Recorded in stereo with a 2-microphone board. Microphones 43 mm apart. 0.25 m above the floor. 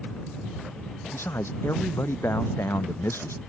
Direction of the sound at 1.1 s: 80° left.